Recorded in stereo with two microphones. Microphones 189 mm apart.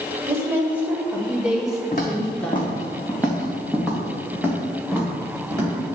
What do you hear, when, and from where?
0.3 s a woman speaking: 15° right (ahead or behind), 2.5 m; by 2.7 s 10° left (ahead or behind), 1.3 m
1.9 s footsteps: 45° left (ahead or behind), 2 m; by 5.8 s 20° right (ahead or behind), 4.5 m